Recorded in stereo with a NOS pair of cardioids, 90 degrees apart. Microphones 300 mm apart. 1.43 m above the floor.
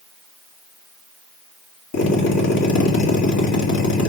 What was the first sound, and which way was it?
A drill, 55° left.